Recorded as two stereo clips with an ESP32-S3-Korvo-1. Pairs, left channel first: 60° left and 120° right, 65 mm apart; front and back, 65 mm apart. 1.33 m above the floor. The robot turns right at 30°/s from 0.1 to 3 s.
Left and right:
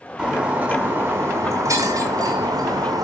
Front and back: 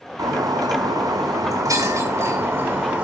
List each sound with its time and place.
0.2 s breaking glass: 160° left, 5 m; by 3.0 s 115° right, 5 m